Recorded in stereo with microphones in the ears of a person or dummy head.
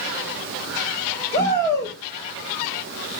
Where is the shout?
70° left (ahead or behind), 4.5 m.